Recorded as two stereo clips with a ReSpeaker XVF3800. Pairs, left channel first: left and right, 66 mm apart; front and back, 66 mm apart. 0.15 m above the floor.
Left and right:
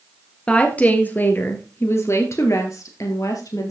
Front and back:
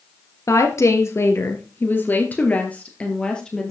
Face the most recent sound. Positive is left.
turn(degrees=80)